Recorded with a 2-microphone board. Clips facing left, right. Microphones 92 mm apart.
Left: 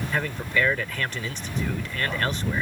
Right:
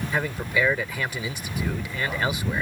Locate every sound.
0.1 s a man speaking: 10° right (ahead or behind)